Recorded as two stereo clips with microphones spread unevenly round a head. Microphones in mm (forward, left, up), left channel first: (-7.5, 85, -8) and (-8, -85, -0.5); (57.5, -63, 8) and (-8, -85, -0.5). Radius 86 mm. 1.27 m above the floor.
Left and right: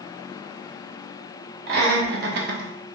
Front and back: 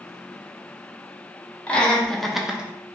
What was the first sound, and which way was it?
Laughter, 55° right.